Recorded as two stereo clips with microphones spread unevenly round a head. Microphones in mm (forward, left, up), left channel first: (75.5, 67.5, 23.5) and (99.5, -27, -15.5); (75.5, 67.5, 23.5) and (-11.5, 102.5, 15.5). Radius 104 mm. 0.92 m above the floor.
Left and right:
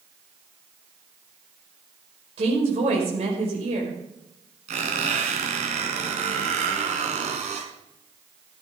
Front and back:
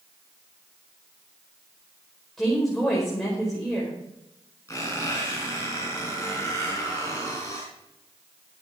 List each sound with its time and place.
2.4 s a woman speaking: 110° right, 4.5 m
4.7 s a squeak: 95° right, 3.5 m